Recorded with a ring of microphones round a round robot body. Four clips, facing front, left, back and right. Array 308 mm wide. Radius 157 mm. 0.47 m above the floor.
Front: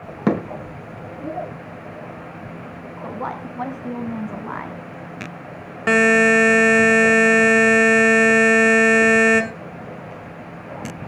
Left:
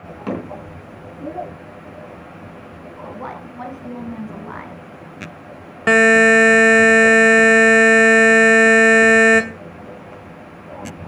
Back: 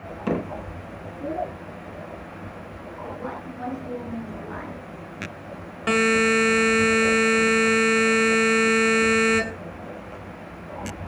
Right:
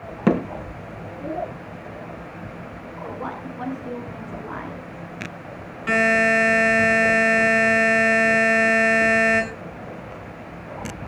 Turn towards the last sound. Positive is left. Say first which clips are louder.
# left 7 dB, front 5 dB
turn(degrees=70)